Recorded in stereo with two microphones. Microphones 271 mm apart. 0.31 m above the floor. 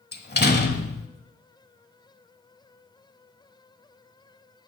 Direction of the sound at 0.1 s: 35° left (ahead or behind).